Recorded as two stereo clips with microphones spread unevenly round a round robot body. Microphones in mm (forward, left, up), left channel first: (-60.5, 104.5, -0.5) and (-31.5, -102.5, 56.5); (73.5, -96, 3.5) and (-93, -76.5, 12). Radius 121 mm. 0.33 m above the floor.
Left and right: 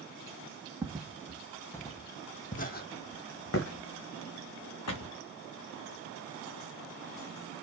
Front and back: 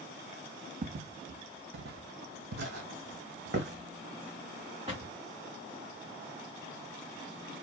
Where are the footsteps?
160° right, 1.4 m; by 5.2 s 100° left, 1.7 m.